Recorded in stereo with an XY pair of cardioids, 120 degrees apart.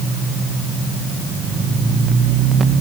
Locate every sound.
Only background noise.